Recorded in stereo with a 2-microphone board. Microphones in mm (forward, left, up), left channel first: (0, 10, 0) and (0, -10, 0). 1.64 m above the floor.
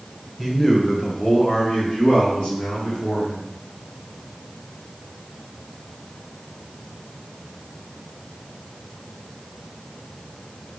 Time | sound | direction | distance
0.4 | a man speaking | 5° left (ahead or behind) | 1.6 m